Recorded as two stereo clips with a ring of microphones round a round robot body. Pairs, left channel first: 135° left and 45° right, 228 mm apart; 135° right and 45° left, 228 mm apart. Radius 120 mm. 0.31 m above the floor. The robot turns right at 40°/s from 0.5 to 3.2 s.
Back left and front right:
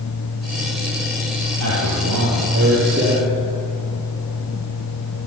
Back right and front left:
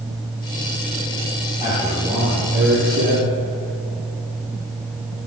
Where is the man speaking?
35° right, 8 m; by 3.3 s 30° left, 8 m.